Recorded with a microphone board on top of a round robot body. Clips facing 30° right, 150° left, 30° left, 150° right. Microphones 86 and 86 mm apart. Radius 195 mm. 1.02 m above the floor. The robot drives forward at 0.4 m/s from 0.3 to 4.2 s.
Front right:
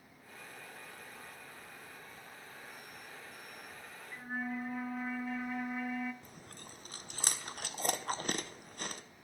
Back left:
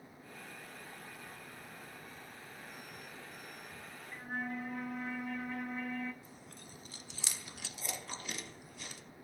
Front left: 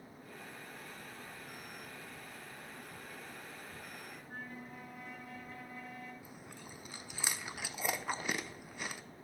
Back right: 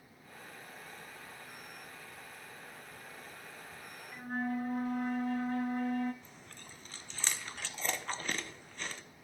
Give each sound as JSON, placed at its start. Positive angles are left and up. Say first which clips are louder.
{"t": 4.1, "sound": "a flute", "louder": "front right 1 dB, back right 16 dB", "azimuth_deg": -110, "distance_m": 0.8}
{"t": 6.2, "sound": "chewing", "louder": "front right 1 dB, front left 3 dB", "azimuth_deg": -45, "distance_m": 1.1}